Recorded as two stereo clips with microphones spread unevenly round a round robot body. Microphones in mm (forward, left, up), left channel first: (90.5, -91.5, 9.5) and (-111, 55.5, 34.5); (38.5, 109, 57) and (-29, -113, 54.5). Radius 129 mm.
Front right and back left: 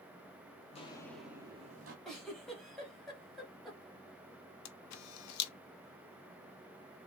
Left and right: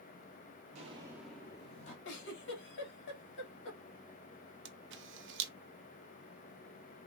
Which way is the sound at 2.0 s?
50° left.